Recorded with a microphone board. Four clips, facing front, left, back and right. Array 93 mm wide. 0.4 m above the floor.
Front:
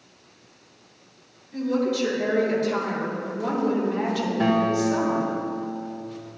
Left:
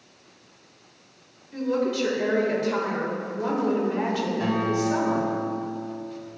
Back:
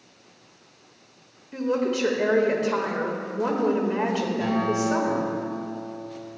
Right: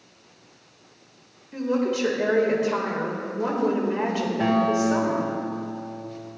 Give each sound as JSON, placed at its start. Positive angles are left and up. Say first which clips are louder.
{"t": 1.5, "sound": "a woman speaking", "louder": "right 1 dB, front 1 dB", "azimuth_deg": -160, "distance_m": 1.7}
{"t": 4.4, "sound": "a guitar", "louder": "right 6 dB, front 5 dB", "azimuth_deg": -35, "distance_m": 1.5}